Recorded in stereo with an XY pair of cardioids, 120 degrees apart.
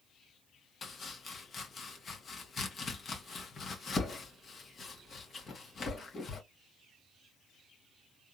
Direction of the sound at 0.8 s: 35° left.